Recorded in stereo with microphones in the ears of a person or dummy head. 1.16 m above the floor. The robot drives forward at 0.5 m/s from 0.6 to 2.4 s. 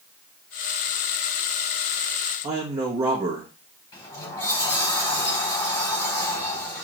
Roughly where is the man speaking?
Right.